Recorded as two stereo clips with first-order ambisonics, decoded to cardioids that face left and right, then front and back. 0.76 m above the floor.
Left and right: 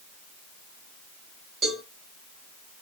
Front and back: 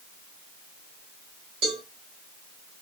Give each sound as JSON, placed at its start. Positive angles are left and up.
{"t": 1.6, "sound": "a cowbell", "azimuth_deg": -155, "distance_m": 2.0}